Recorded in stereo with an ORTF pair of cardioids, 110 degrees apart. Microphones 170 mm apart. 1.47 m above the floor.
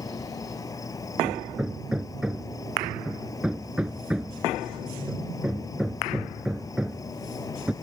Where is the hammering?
5° right.